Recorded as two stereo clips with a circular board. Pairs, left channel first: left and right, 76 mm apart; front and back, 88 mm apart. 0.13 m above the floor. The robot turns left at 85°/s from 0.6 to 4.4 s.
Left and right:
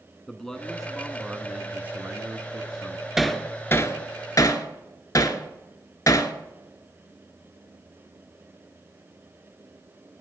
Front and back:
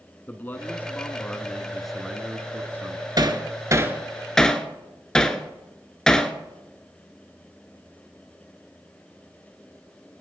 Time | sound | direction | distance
0.3 | a man speaking | 20° left | 1.1 m
3.2 | hammering | 175° right | 1.0 m